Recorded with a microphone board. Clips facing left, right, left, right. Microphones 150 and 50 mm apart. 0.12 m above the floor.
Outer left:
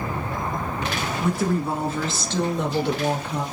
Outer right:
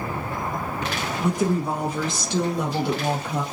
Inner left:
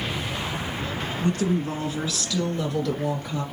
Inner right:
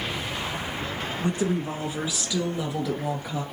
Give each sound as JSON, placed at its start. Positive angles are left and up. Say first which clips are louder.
{"t": 1.2, "sound": "a woman speaking", "louder": "outer right 1 dB, inner left 2 dB", "side_deg": -20, "distance_m": 1.8}